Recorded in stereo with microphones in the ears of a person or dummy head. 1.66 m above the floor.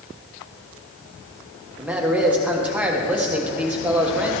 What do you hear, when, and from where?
1.8 s a man speaking: 5° right (ahead or behind), 1.2 m